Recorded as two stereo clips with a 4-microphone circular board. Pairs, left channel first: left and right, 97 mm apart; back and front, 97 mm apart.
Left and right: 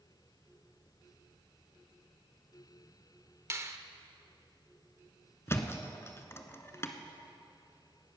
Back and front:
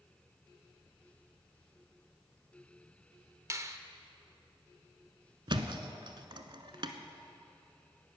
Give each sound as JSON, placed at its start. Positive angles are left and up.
{"t": 3.5, "sound": "a finger snap", "azimuth_deg": -45, "distance_m": 0.8}
{"t": 5.5, "sound": "a thud", "azimuth_deg": 30, "distance_m": 1.0}